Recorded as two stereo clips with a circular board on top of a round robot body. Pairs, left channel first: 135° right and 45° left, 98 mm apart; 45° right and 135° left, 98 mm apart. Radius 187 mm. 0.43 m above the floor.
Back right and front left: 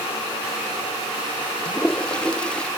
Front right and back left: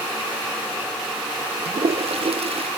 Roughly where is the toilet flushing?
Behind left.